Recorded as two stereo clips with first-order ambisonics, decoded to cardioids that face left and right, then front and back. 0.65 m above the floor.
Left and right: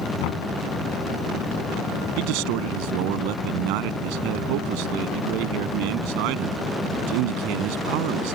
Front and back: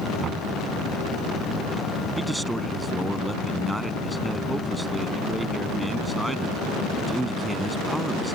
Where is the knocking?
115° left.